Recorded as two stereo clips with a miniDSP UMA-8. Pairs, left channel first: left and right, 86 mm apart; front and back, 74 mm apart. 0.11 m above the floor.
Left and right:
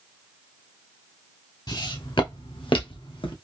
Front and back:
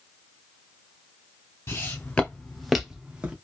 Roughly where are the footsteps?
Ahead left.